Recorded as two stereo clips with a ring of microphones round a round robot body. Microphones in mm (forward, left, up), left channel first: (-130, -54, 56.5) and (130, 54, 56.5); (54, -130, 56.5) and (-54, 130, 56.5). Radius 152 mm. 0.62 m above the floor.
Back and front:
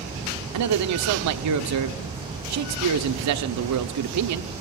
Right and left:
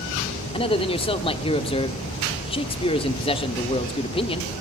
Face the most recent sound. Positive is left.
turn(degrees=5)